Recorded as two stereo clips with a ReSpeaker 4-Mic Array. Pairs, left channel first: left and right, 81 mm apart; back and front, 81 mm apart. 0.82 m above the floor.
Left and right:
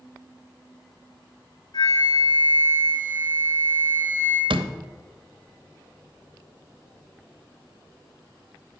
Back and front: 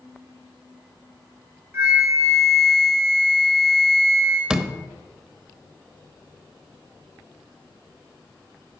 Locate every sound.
1.7 s a flute: 60° left, 3 m
4.5 s a door slam: 80° right, 0.6 m